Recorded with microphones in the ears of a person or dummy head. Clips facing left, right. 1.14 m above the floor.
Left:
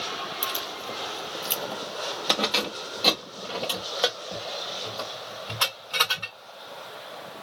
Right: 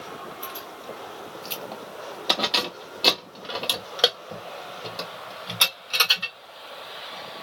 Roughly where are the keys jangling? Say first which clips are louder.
Left 2 dB; left.